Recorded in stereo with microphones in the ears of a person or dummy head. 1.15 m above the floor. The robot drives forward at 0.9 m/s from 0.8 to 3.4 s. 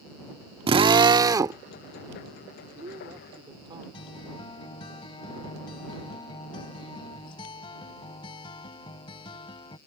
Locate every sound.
0.7 s a drill: 25° right (ahead or behind); by 1.6 s 15° right (ahead or behind)
2.4 s a man speaking: 30° right (ahead or behind); by 3.8 s 20° right (ahead or behind)
3.9 s a guitar: 30° left (ahead or behind)